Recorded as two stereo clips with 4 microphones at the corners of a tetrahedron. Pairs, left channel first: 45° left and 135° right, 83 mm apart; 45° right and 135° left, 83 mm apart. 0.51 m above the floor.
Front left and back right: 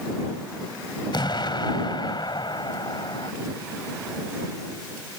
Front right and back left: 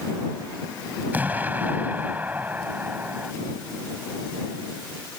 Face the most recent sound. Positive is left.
turn(degrees=65)